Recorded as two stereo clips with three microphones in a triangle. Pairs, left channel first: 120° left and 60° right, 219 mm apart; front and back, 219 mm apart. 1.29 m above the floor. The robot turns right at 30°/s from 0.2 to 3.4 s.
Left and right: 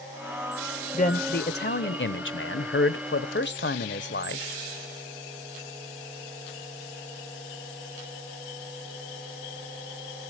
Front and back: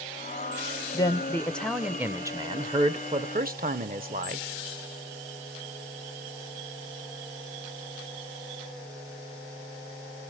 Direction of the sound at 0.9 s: 65° left.